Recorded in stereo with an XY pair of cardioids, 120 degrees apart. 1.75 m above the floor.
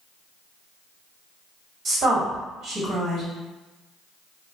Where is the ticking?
I don't hear ticking.